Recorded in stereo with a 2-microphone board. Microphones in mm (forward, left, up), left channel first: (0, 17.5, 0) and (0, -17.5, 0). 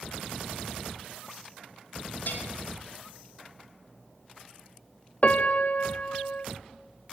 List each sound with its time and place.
2.3 s a bell: 85° left, 4.5 m
5.2 s a piano: 45° left (ahead or behind), 0.6 m